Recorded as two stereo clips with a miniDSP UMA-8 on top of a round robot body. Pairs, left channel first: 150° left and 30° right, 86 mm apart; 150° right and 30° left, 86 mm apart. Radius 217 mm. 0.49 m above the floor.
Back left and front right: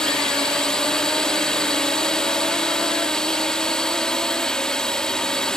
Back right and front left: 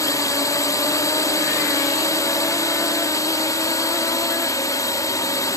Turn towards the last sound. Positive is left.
turn(degrees=-130)